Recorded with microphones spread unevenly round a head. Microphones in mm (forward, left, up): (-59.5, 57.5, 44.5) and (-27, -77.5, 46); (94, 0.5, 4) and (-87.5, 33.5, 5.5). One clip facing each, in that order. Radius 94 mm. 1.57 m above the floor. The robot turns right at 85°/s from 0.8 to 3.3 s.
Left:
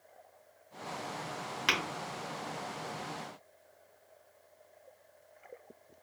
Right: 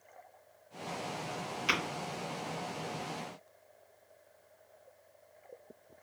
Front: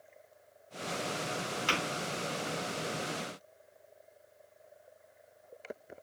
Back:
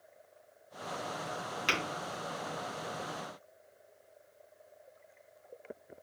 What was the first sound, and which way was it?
Tapping, 105° left.